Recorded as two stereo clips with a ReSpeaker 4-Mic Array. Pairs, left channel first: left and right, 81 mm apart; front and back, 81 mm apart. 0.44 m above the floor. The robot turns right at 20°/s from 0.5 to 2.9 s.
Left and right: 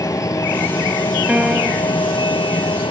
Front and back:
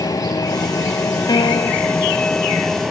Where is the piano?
15° right; by 1.9 s 5° right.